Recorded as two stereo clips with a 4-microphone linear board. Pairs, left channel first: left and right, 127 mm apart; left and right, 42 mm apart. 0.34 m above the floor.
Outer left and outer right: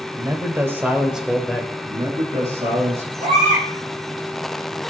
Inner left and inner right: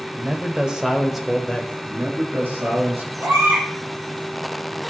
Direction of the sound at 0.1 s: 25° right (ahead or behind).